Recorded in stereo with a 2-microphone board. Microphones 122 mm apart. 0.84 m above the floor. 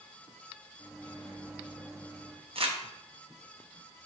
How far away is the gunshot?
No gunshot in this recording.